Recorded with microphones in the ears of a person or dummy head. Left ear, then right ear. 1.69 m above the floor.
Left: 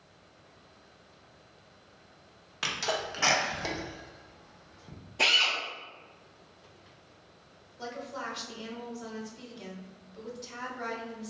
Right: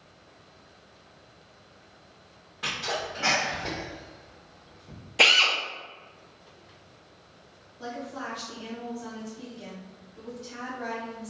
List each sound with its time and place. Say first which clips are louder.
2.6 s a sneeze: right 1 dB; 70° left (ahead or behind), 0.9 m
5.2 s a drill: right 5 dB; 35° right (ahead or behind), 0.6 m
7.8 s a woman speaking: right 2 dB; 50° left (ahead or behind), 1.2 m